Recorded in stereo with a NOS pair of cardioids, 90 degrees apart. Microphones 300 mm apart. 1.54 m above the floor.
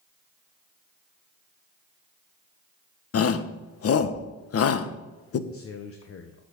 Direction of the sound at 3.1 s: 55° left.